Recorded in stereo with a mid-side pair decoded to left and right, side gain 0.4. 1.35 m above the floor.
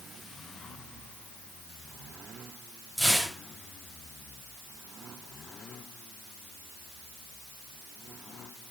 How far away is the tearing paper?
About 6 m.